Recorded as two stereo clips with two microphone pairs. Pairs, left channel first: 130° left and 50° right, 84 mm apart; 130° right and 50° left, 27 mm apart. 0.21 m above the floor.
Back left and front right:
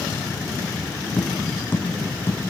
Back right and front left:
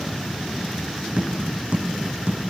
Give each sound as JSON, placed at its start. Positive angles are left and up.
{"t": 1.2, "sound": "tapping", "azimuth_deg": 60, "distance_m": 3.5}